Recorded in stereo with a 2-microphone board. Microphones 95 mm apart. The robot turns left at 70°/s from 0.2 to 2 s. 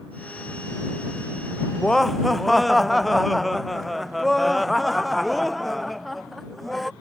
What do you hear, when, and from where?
1.8 s laughter: 15° left (ahead or behind); by 6.9 s centre (ahead or behind)